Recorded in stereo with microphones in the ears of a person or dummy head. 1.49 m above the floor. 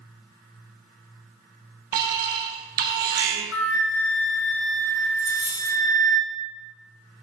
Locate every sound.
1.9 s an alarm: 50° right (ahead or behind), 1.3 m
3.5 s a flute: 75° left (ahead or behind), 1.4 m
5.2 s a dropped coin: 30° left (ahead or behind), 2 m